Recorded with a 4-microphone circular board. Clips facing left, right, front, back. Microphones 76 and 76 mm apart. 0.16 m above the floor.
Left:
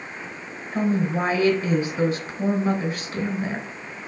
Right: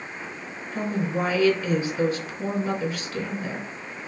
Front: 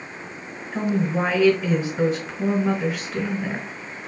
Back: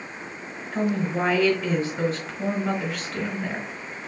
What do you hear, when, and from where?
0.7 s a woman speaking: 80° left, 1.2 m